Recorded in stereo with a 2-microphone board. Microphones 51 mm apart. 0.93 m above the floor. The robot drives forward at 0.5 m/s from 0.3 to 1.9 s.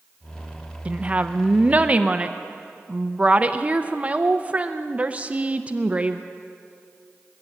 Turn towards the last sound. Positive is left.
turn(degrees=-25)  # may be behind; listen again after turning